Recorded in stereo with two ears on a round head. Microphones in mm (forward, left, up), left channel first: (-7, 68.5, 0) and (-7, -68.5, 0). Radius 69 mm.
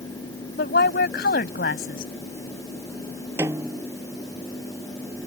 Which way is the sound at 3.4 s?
15° right (ahead or behind).